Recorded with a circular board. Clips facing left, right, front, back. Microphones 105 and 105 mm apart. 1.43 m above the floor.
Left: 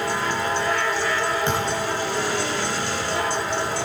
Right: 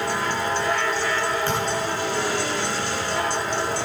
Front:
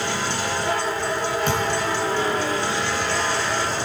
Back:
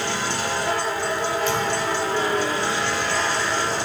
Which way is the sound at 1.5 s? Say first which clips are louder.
Even, even; 25° left.